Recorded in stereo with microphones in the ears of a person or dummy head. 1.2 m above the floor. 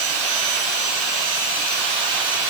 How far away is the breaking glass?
No breaking glass in this recording.